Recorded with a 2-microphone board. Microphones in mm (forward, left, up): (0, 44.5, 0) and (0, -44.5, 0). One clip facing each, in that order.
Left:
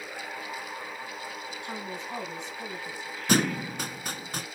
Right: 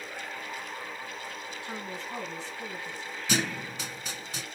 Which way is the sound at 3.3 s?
50° left (ahead or behind).